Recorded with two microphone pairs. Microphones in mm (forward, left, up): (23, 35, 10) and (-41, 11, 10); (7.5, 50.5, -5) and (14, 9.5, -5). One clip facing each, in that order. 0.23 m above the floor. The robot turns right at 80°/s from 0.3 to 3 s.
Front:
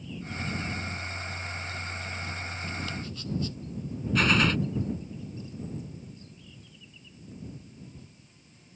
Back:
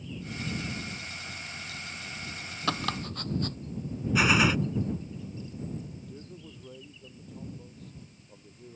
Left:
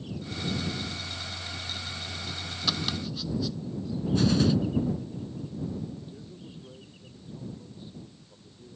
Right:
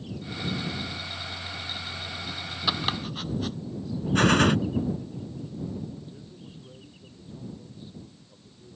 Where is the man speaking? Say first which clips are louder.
Back 4 dB, left 1 dB; 170° right.